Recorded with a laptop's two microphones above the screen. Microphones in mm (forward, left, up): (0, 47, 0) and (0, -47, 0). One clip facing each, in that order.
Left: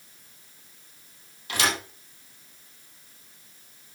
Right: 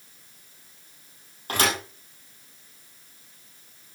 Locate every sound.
1.5 s a thud: 45° right (ahead or behind), 4.5 m